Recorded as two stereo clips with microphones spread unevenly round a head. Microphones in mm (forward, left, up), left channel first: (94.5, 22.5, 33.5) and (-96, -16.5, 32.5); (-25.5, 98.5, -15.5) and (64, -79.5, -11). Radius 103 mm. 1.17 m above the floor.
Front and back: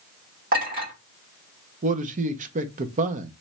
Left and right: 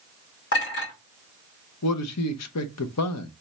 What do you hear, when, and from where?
0.5 s a clink: 145° left, 2.5 m
1.8 s a man speaking: 135° left, 0.7 m